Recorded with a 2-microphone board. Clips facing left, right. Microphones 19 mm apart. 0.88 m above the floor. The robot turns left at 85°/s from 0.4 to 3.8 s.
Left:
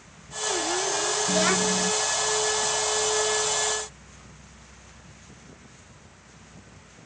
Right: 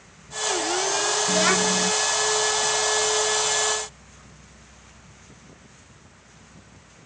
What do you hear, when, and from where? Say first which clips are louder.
1.3 s a child speaking: right 2 dB; 5° left; by 1.9 s 50° right